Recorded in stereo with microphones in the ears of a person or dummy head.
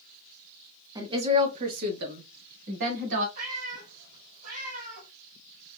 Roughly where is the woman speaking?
Centre.